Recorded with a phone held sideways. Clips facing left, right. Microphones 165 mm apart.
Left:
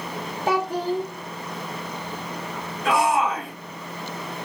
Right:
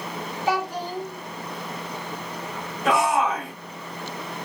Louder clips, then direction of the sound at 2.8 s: Even; 25° right (ahead or behind).